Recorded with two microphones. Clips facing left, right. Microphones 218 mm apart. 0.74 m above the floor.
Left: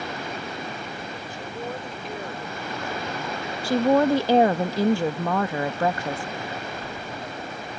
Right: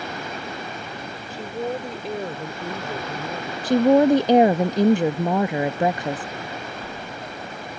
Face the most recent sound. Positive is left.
turn(degrees=-20)  # may be behind; listen again after turning